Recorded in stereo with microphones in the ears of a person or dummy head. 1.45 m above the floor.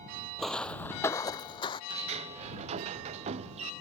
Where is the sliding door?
35° right (ahead or behind).